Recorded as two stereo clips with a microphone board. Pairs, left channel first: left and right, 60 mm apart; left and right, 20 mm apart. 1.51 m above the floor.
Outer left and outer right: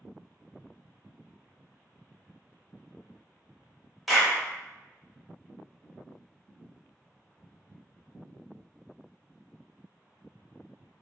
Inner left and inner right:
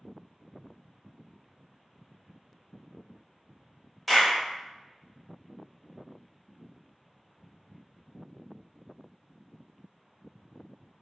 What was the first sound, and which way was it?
A clap, centre (ahead or behind).